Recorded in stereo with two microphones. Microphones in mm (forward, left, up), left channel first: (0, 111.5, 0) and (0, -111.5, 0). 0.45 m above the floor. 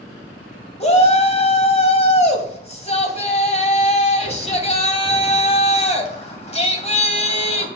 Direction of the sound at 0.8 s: 30° left (ahead or behind).